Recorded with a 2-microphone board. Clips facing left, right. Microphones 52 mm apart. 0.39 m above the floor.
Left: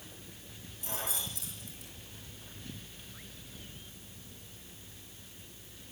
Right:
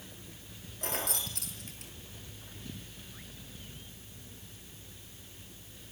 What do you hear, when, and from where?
0.8 s keys jangling: 65° right (ahead or behind), 6 m